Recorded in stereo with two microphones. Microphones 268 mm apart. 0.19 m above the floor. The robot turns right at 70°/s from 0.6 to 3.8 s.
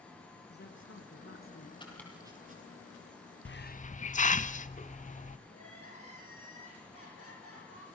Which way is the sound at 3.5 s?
50° left (ahead or behind).